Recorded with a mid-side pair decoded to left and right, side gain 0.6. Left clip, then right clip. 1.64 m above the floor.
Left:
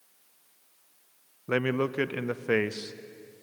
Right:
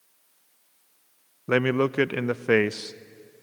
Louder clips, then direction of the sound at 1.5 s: Right 5 dB; 30° right.